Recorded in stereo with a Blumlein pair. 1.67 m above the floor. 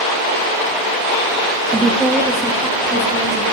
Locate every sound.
1.7 s a woman speaking: 15° right, 0.6 m; by 3.4 s 10° right, 1.6 m